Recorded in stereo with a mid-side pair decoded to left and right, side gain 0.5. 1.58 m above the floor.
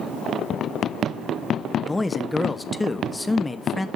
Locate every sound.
1.8 s a man speaking: 15° left, 1.2 m